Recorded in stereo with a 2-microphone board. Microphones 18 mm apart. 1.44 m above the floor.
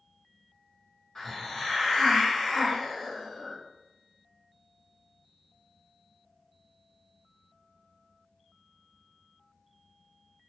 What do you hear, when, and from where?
1.1 s a hiss: 30° left (ahead or behind), 1.5 m